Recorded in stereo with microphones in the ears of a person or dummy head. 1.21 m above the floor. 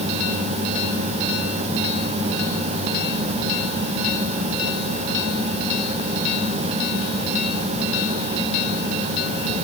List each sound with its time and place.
Only background noise.